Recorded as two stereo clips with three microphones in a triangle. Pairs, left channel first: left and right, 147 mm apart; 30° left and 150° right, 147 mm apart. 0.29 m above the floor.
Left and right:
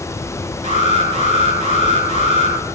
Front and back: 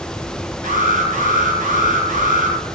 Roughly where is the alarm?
Behind right.